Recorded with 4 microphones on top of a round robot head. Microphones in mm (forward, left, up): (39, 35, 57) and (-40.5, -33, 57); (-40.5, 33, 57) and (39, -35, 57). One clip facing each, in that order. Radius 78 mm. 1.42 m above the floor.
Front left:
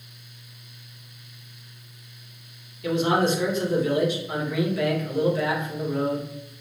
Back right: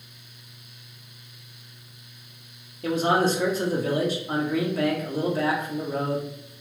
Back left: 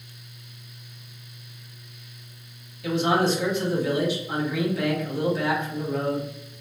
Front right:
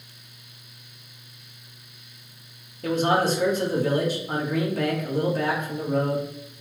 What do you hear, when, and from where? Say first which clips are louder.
2.8 s a man speaking: even, even; 85° right, 0.9 m